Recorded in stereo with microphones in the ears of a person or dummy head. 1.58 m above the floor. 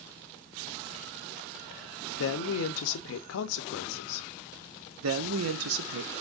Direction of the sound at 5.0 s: 75° right (ahead or behind).